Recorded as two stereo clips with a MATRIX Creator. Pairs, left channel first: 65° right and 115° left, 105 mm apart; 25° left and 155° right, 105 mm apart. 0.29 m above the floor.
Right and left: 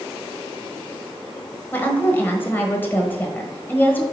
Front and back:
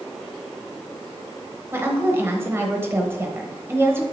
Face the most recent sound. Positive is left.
turn(degrees=-115)